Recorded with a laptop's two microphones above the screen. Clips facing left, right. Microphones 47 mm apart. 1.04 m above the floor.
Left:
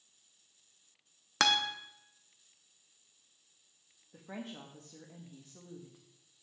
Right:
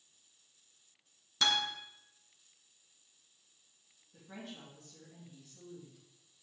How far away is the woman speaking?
About 1.0 m.